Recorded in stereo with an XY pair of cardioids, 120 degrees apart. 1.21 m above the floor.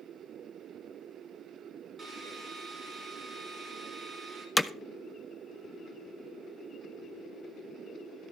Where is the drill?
30° right, 5.5 m.